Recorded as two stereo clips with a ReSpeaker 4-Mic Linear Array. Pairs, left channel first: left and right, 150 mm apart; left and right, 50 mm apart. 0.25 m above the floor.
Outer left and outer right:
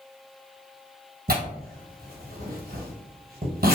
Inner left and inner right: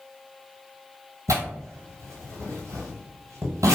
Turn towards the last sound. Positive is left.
turn(degrees=-85)